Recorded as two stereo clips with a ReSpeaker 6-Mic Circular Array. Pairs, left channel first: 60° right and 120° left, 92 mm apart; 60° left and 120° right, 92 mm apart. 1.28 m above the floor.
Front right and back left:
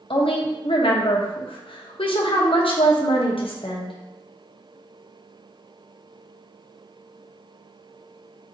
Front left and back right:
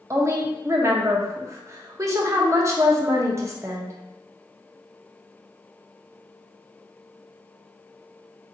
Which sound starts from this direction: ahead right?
A woman speaking, at 0.1 s.